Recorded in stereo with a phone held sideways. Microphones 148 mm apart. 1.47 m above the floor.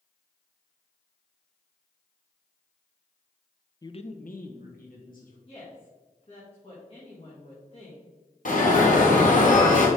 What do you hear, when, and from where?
3.8 s a man speaking: 25° left (ahead or behind), 0.6 m; by 5.4 s 70° left (ahead or behind), 2 m
5.5 s a woman speaking: 40° left (ahead or behind), 1.7 m
8.4 s an alarm: 60° left (ahead or behind), 1.7 m